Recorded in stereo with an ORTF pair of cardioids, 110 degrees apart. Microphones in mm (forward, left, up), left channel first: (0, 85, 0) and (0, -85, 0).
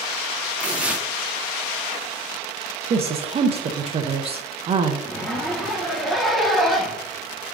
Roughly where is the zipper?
Ahead.